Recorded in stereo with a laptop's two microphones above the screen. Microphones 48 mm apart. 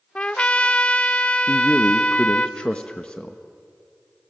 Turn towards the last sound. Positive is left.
turn(degrees=20)  # may be behind; listen again after turning